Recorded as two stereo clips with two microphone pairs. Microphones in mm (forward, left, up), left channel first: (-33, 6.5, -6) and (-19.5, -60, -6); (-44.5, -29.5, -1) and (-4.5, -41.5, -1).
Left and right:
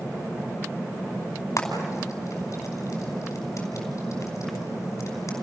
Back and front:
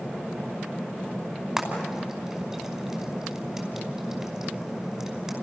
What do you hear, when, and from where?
1.6 s frying: 60° left, 5 m